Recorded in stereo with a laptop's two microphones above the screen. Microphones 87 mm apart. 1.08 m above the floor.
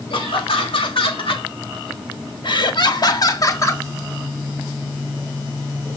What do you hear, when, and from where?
0.1 s laughter: 80° left, 2.5 m; by 3.8 s 30° left (ahead or behind), 1.8 m